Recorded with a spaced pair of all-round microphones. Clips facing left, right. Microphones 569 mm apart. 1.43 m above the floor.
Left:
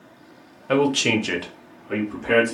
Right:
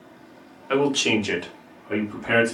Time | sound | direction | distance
0.7 | a man speaking | 65° left (ahead or behind) | 0.7 m